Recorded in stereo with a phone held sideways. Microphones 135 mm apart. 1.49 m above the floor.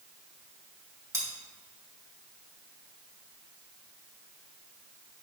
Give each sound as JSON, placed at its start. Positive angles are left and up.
{"t": 1.1, "sound": "cutlery clinking", "side_deg": -25, "distance_m": 1.8}